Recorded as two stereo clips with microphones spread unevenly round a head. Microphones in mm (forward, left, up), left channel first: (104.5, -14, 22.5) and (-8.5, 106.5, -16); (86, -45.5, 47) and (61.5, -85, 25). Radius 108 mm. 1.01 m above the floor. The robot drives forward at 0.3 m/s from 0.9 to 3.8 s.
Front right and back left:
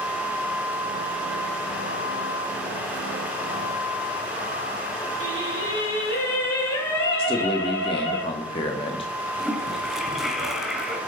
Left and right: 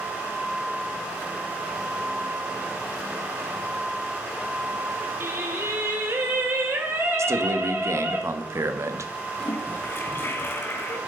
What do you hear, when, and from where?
5.2 s singing: 90° right, 4.5 m
7.2 s a man speaking: 115° right, 1.4 m
9.4 s a toilet flushing: 40° left, 2 m